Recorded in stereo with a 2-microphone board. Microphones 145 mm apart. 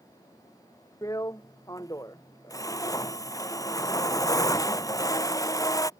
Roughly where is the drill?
Left.